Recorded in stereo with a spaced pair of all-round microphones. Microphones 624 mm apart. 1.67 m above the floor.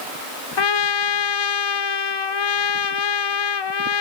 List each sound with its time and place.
0.6 s a trumpet: 40° left (ahead or behind), 0.6 m